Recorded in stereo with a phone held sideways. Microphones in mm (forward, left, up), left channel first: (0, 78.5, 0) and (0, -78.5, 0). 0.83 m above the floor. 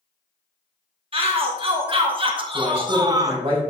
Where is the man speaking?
40° right (ahead or behind), 4.5 m.